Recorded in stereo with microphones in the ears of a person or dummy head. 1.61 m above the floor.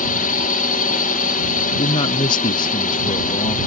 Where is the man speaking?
30° left (ahead or behind).